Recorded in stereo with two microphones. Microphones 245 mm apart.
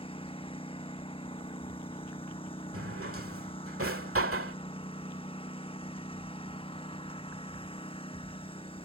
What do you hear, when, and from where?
0.0 s a lawn mower: 25° left (ahead or behind)
2.7 s a drawer: 70° right (ahead or behind)